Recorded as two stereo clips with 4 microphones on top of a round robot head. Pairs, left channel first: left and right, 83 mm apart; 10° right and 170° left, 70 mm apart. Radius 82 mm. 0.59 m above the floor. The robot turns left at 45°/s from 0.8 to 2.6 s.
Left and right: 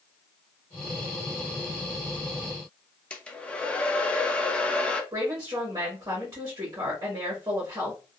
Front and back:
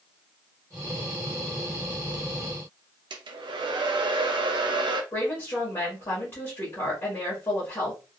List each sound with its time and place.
3.1 s a hair dryer: 165° left, 0.6 m
5.1 s a woman speaking: 50° right, 1.2 m